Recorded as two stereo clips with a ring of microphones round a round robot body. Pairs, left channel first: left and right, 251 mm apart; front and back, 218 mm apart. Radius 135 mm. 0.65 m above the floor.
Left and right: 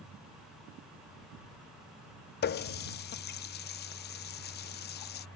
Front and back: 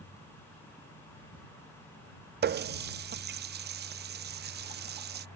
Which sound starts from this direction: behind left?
A running tap, at 2.4 s.